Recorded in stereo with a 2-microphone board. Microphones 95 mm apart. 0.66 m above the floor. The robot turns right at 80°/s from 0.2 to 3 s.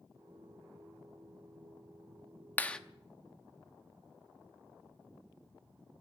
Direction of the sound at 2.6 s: 20° left (ahead or behind).